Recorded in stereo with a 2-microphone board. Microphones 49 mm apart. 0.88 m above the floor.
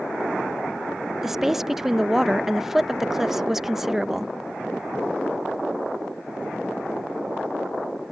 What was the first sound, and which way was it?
A woman speaking, 5° right (ahead or behind).